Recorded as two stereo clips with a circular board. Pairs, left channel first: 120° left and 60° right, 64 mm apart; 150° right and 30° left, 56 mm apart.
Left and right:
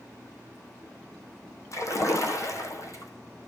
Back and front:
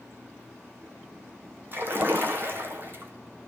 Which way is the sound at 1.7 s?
85° left.